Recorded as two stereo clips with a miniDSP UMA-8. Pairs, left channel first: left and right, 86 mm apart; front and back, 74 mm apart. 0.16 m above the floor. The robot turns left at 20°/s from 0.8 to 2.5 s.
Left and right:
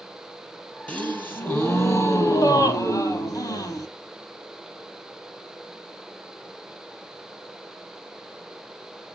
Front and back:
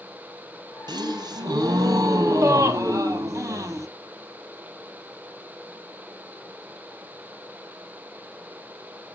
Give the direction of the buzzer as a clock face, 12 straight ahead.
No buzzer in this recording.